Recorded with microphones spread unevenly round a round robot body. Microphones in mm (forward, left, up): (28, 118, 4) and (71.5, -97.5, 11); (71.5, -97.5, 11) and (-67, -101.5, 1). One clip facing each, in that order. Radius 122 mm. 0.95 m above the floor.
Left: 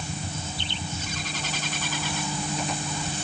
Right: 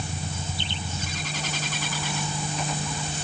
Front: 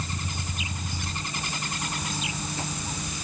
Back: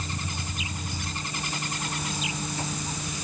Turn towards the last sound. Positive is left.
No sound to turn to.